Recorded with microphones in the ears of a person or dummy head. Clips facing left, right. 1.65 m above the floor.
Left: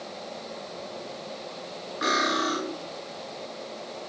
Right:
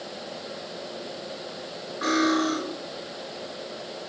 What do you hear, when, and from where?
2.0 s cutlery clinking: 40° left (ahead or behind), 1.8 m